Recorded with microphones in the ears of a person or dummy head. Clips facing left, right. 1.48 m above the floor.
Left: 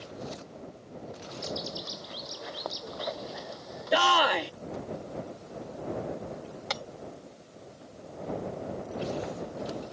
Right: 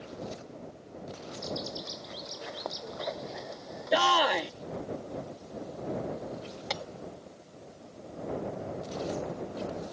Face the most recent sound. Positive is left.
turn(degrees=0)  # may be behind; listen again after turning